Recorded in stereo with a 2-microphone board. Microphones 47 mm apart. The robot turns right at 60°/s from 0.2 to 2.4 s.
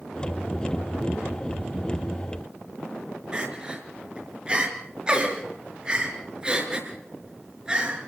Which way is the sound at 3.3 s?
15° right (ahead or behind).